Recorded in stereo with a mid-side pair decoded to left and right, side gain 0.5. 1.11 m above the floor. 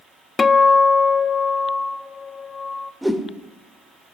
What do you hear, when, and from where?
0.4 s a guitar: 35° left, 0.5 m
3.0 s a whoosh: straight ahead, 1.8 m